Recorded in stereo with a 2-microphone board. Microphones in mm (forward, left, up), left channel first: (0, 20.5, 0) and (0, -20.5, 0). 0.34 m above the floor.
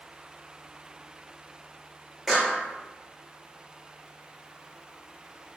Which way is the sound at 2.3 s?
5° right (ahead or behind).